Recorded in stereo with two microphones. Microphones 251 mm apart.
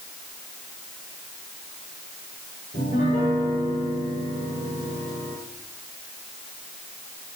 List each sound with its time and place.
2.7 s a piano: 30° left (ahead or behind), 8.5 m